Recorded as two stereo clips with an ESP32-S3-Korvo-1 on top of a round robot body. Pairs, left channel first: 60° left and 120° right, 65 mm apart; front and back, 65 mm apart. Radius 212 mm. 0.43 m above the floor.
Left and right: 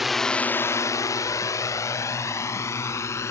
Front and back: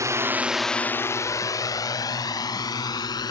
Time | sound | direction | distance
0.0 | a drone | 155° left | ?